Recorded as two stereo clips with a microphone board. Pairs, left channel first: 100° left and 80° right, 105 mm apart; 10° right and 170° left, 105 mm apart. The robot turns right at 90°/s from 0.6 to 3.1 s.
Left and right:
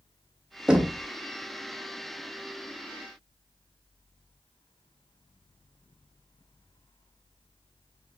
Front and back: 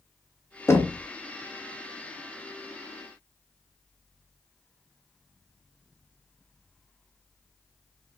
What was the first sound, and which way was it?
Knocking, 10° right.